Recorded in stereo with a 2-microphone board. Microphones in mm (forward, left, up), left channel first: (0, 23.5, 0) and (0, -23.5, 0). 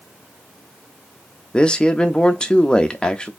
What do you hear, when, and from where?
1.5 s a man speaking: 20° left (ahead or behind), 0.7 m